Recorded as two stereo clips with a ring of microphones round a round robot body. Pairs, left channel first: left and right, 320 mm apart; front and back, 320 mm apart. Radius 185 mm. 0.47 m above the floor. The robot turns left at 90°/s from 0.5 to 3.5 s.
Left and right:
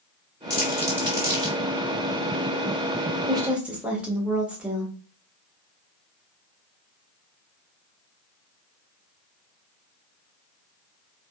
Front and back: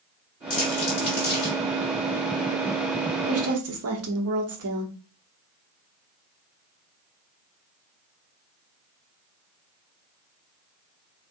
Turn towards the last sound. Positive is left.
turn(degrees=-175)